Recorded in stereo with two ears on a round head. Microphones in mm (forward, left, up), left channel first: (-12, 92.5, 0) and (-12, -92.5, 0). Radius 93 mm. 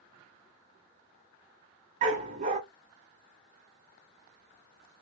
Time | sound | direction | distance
2.0 | a dog barking | 35° right (ahead or behind) | 1.1 m